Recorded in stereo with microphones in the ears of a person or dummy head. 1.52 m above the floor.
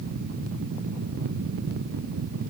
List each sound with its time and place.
Only background noise.